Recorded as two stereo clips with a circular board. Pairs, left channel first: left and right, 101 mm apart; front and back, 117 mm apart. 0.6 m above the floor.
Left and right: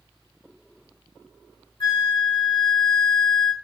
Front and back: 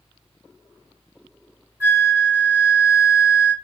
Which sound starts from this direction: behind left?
A flute, at 1.8 s.